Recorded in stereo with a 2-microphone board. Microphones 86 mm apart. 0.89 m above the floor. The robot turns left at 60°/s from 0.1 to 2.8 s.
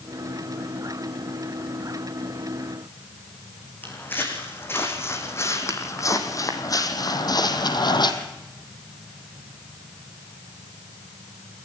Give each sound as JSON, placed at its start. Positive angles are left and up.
{"t": 3.8, "sound": "footsteps", "side_deg": 25, "distance_m": 3.5}